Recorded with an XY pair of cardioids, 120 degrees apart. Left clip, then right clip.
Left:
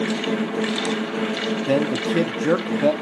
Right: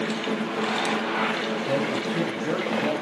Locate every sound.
0.0 s a fan: 30° left, 1.0 m
1.7 s a man speaking: 45° left, 1.0 m